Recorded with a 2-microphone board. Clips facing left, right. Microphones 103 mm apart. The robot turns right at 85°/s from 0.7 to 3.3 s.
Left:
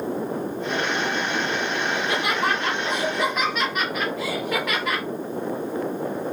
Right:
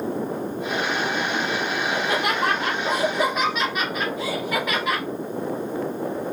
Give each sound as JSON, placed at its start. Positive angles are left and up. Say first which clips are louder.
{"t": 1.9, "sound": "laughter", "louder": "right 1 dB", "azimuth_deg": -135, "distance_m": 1.9}